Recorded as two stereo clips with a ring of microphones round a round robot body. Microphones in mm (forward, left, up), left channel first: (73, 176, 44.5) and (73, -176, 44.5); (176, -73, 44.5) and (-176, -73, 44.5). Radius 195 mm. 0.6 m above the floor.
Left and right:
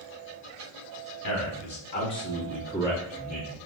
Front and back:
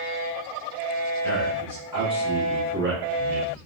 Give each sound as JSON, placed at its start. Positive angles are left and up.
{"t": 1.2, "sound": "a man speaking", "azimuth_deg": 85, "distance_m": 1.4}